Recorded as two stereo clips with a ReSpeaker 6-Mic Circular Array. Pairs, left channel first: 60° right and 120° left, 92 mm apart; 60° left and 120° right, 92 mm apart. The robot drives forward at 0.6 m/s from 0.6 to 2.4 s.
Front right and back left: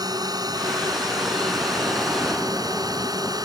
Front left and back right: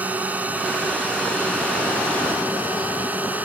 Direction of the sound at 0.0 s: 165° left.